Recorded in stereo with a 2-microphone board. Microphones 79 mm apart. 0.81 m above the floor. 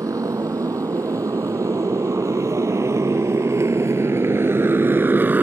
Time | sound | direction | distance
0.0 | a motorcycle | 40° right (ahead or behind) | ?